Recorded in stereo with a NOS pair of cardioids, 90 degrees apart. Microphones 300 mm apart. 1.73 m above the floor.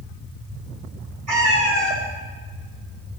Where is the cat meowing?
70° right, 5 m.